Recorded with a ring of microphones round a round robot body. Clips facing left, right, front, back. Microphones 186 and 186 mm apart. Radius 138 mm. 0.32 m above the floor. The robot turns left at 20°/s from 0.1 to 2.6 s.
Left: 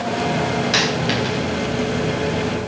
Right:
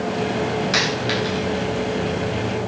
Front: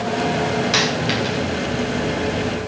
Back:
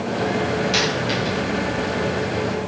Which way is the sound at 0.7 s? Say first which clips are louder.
Left 2 dB, front 1 dB; 30° left.